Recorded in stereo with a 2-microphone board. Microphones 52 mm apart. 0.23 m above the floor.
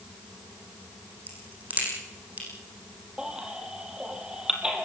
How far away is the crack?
About 8 m.